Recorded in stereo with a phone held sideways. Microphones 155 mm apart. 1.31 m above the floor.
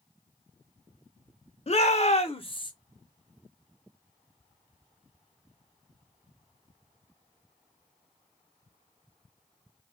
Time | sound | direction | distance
1.7 | a shout | 45° left (ahead or behind) | 0.7 m